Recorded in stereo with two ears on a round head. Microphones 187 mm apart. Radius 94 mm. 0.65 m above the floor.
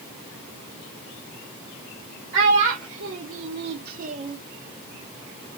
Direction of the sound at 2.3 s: 65° right (ahead or behind).